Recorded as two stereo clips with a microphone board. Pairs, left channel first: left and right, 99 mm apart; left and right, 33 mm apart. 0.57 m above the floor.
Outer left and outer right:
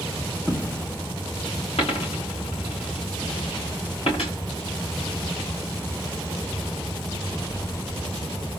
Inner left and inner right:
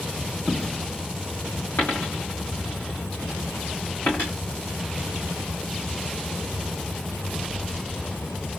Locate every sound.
0.5 s a dropped coin: 25° left (ahead or behind), 2.5 m
1.8 s a dropped coin: 80° left, 4 m